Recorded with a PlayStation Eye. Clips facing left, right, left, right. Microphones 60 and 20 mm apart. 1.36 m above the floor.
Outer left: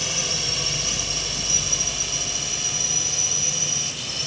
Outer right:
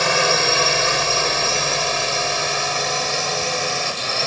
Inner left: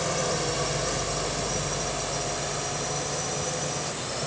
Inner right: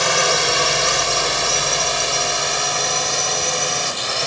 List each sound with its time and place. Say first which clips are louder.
0.0 s a drone: outer right 13 dB, inner right 11 dB; 65° right (ahead or behind); by 4.3 s 60° right (ahead or behind)